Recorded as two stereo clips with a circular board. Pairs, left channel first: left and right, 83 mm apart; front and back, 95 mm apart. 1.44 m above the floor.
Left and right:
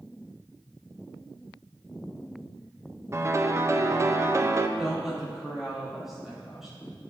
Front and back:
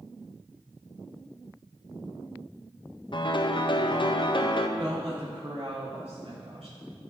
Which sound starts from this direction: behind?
A woman speaking, at 4.8 s.